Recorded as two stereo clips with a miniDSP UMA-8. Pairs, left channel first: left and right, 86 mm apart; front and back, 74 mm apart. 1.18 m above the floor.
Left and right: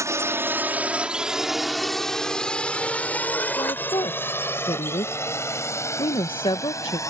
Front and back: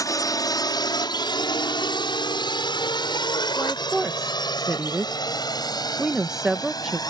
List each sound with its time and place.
0.0 s a drone: 35° right; by 7.1 s 35° left
3.6 s a woman speaking: 95° left